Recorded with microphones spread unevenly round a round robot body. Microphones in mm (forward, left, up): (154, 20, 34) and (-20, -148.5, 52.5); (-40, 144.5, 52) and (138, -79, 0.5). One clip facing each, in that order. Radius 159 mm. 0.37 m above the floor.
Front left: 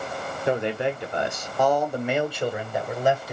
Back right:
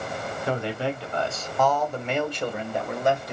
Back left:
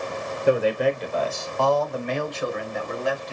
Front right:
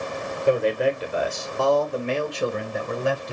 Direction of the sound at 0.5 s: 35° left.